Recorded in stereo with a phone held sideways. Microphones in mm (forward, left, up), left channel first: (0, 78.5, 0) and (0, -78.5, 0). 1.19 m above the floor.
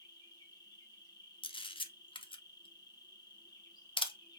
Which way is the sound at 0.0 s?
25° left (ahead or behind).